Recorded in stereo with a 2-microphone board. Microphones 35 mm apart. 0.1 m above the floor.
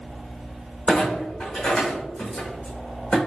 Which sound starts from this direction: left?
A clunk, at 0.9 s.